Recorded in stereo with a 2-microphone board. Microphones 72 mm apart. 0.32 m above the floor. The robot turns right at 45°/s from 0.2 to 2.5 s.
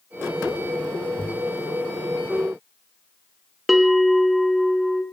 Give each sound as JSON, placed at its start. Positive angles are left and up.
{"t": 1.2, "sound": "a thud", "side_deg": 75, "distance_m": 9.0}
{"t": 3.7, "sound": "a bell", "side_deg": 0, "distance_m": 1.7}